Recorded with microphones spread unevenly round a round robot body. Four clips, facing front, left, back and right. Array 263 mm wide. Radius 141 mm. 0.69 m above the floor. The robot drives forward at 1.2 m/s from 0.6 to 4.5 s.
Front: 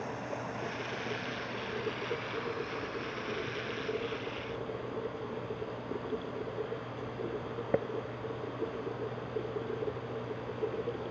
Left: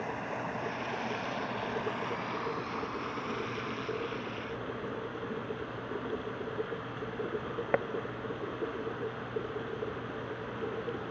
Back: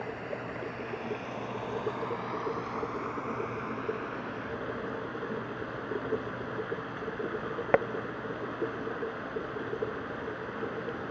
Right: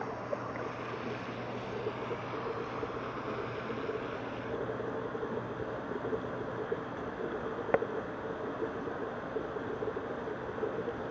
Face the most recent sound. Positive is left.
turn(degrees=145)